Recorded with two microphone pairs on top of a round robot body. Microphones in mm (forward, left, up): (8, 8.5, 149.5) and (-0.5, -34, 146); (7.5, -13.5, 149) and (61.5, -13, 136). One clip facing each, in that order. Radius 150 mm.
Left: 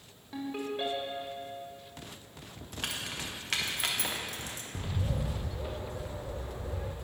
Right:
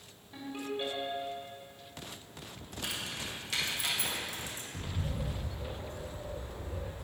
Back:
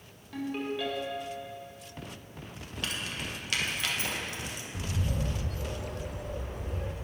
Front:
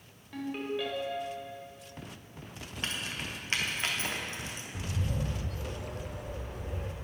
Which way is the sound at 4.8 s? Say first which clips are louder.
Left 4 dB, back 1 dB; 80° left.